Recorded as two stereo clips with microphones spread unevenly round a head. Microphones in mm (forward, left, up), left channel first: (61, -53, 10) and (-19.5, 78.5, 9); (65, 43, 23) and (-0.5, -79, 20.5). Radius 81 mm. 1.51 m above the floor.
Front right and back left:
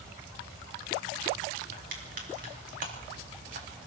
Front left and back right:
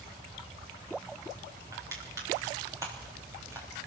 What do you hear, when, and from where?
1.7 s crushing: 165° left, 3.5 m